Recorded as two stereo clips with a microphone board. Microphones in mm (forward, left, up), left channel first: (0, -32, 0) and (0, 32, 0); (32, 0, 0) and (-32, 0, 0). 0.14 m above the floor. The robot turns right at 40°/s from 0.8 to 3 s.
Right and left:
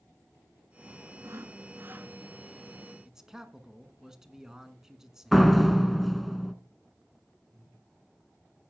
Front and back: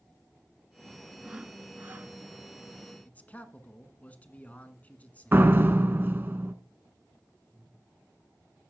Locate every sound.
1.2 s sawing: 105° left, 0.8 m; by 2.1 s 140° left, 0.8 m
3.0 s a man speaking: 20° left, 1.2 m
5.3 s a door slam: straight behind, 1.0 m
7.5 s breathing: 110° left, 7 m